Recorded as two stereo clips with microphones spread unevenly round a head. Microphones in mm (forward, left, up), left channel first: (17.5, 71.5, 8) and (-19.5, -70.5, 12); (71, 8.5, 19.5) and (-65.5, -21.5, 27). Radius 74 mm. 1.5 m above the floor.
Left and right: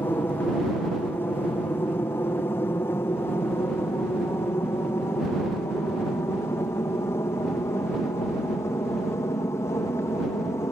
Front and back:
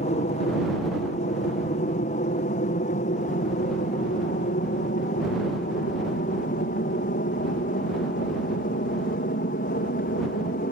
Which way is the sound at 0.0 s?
5° left.